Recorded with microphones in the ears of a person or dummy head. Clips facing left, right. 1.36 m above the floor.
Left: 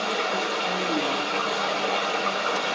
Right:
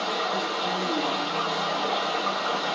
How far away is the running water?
About 0.7 m.